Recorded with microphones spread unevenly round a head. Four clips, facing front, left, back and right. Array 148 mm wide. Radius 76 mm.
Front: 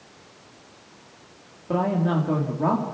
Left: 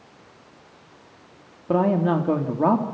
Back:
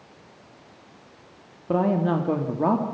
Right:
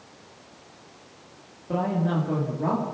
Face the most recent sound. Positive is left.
turn(degrees=85)